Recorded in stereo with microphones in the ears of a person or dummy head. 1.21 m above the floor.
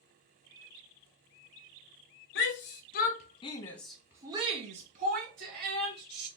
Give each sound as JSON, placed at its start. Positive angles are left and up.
{"t": 2.4, "sound": "a shout", "side_deg": 55, "distance_m": 1.0}